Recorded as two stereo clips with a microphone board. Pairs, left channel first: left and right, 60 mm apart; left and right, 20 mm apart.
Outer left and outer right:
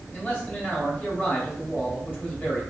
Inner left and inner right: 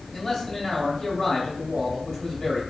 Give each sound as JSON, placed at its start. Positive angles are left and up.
{"t": 0.1, "sound": "a man speaking", "side_deg": 30, "distance_m": 2.0}